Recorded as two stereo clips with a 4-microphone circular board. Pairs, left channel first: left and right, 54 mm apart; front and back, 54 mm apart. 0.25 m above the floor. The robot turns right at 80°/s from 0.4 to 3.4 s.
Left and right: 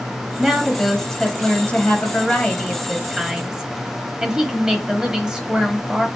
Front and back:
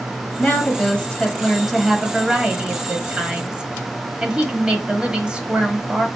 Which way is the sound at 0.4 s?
20° right.